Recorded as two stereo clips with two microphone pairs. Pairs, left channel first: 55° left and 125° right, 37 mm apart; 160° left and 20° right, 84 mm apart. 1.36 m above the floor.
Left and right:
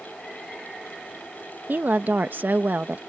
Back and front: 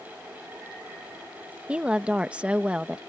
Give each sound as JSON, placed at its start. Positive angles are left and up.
{"t": 1.7, "sound": "a woman speaking", "azimuth_deg": -95}